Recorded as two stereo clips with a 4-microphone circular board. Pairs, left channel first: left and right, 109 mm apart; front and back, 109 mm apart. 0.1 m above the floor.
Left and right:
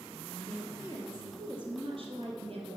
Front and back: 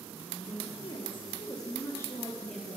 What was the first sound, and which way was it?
A woman speaking, 25° right.